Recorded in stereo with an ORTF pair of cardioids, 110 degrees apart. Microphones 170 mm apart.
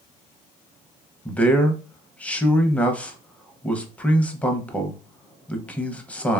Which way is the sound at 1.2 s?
10° left.